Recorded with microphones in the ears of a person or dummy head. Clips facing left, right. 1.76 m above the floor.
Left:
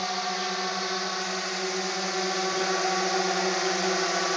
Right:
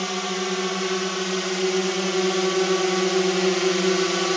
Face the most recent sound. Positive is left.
turn(degrees=-45)  # may be behind; listen again after turning